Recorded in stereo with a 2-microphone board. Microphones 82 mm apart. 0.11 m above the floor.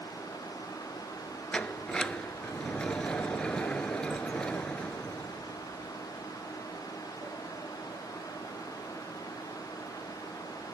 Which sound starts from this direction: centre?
A sliding door, at 1.5 s.